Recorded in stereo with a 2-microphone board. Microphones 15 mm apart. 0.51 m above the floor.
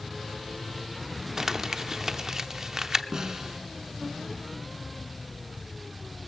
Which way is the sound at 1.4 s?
35° right (ahead or behind).